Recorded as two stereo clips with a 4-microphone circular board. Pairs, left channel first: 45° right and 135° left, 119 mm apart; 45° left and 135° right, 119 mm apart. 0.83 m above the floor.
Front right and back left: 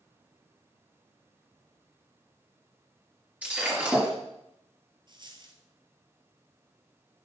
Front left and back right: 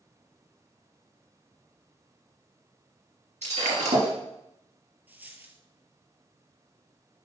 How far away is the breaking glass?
About 3.5 m.